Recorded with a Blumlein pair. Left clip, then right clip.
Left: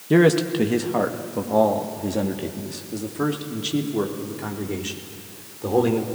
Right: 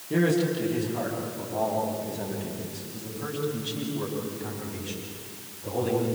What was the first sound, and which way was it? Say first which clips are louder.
A man speaking: left 7 dB; 30° left.